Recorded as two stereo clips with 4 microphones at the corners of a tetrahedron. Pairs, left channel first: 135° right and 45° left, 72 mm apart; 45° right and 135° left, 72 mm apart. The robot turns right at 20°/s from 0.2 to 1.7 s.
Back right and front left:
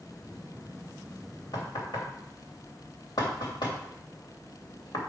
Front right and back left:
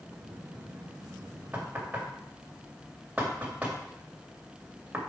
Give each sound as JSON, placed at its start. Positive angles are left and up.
{"t": 1.5, "sound": "knocking", "azimuth_deg": -155, "distance_m": 2.5}